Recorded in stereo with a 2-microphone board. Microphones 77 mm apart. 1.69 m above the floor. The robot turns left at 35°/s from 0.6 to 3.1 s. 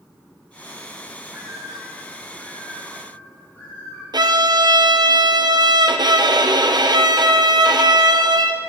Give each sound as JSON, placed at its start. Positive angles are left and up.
{"t": 1.3, "sound": "a bird", "azimuth_deg": -145, "distance_m": 4.5}
{"t": 4.1, "sound": "a violin", "side_deg": -65, "distance_m": 0.5}